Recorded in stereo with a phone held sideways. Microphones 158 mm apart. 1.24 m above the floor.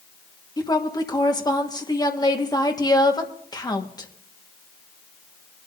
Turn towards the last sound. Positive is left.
turn(degrees=25)  # may be behind; listen again after turning